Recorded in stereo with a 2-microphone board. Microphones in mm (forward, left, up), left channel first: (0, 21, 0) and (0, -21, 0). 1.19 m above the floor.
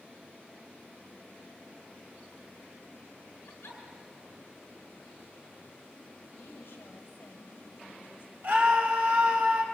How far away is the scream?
About 6.5 m.